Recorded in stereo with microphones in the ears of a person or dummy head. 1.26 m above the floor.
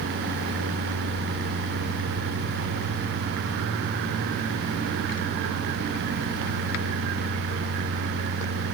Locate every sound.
Only background noise.